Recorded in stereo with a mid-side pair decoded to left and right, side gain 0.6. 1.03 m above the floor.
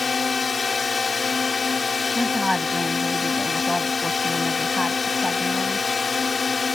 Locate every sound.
0.0 s a drone: 25° left
2.1 s a woman speaking: 5° left